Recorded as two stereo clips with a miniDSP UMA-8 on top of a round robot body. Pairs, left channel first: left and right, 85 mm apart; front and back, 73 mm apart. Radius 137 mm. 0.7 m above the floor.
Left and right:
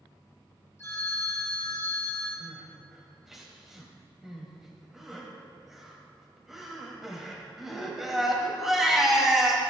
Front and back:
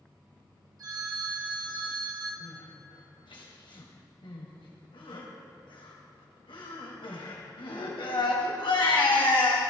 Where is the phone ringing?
150° left, 5 m.